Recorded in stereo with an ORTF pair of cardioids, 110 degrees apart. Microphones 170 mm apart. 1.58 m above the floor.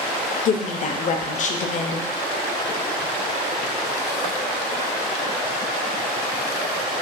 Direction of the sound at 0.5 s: 45° left.